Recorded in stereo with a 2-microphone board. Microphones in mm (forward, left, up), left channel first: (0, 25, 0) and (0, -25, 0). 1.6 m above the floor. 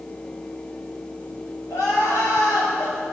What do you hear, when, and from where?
1.7 s crying: 85° left, 8 m